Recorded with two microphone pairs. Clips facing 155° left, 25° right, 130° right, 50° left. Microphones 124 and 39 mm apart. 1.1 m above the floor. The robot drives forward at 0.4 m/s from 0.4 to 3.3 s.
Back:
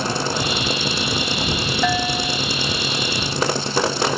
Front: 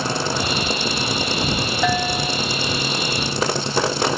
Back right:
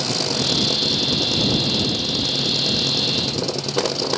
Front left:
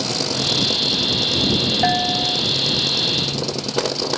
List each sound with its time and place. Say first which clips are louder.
1.8 s a bell: front 1 dB, front left 5 dB; 65° left